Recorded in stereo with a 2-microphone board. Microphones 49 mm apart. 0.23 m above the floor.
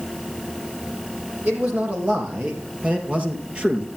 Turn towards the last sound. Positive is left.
turn(degrees=-20)  # may be behind; listen again after turning